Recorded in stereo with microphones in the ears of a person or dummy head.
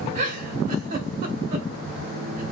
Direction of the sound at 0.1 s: 30° right (ahead or behind).